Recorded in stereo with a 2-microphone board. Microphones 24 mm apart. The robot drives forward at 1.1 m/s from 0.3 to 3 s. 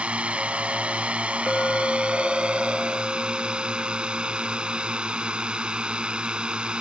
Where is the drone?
60° right (ahead or behind); by 6.8 s 45° right (ahead or behind).